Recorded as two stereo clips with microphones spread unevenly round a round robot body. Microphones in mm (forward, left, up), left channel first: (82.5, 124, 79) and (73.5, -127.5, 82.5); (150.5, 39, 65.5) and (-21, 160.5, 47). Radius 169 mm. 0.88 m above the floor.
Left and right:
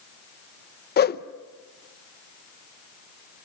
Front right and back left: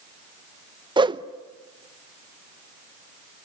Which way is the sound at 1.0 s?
95° left.